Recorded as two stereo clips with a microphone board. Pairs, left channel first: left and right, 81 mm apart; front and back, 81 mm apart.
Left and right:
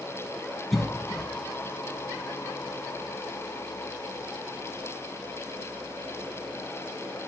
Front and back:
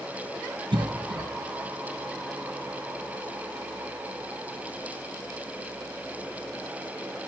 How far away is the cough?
About 1.0 m.